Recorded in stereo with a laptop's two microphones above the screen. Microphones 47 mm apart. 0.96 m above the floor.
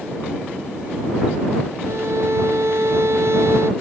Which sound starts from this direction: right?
A violin, at 1.9 s.